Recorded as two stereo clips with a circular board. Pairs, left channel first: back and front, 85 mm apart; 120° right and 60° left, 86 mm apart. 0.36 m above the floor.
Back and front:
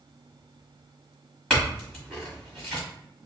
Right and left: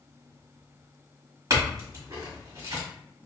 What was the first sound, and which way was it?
A clink, 95° left.